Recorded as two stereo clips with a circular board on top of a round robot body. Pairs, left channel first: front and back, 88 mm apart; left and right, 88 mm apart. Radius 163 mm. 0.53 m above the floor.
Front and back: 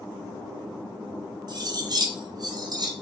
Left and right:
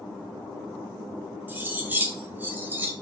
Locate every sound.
1.5 s cutlery clinking: 155° right, 0.6 m